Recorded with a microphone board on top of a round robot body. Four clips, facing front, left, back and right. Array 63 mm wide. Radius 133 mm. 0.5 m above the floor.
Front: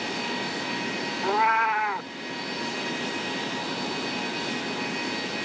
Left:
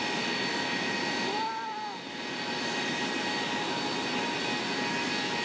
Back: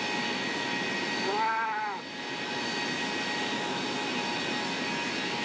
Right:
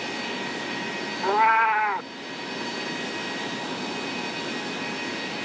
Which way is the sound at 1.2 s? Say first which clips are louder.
Right 13 dB, front 8 dB; 70° right.